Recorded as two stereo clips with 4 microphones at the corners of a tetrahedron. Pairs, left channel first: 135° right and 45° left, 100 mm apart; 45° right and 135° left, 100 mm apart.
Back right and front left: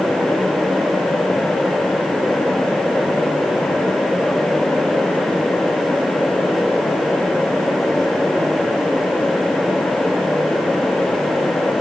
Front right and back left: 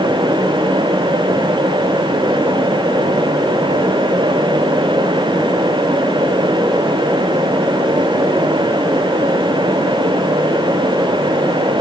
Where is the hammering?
No hammering in this recording.